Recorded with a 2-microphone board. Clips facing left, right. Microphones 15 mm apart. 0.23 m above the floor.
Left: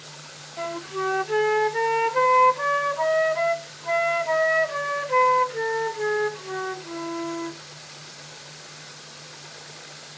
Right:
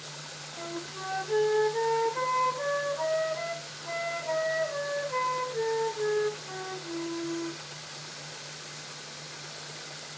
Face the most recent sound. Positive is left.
turn(degrees=45)  # may be behind; listen again after turning